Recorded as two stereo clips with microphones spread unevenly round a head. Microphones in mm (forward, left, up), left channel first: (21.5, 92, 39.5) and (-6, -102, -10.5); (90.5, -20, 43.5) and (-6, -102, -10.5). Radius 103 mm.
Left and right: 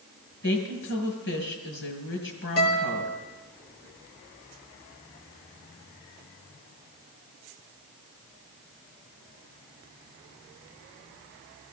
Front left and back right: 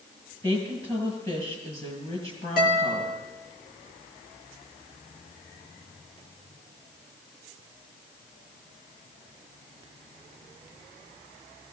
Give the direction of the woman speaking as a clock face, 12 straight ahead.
8 o'clock.